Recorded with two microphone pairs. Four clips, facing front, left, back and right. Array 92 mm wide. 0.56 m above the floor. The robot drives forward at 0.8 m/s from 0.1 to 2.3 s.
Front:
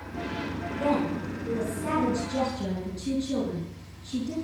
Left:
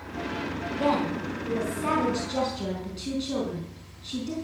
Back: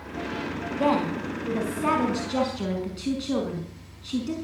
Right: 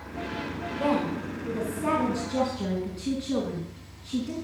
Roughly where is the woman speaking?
Behind.